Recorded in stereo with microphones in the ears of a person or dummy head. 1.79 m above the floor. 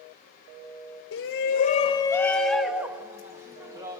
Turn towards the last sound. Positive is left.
turn(degrees=-25)  # may be behind; listen again after turning